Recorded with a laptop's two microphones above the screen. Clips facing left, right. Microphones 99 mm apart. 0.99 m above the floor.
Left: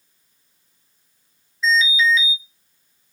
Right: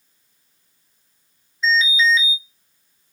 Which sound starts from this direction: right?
An alarm, at 1.6 s.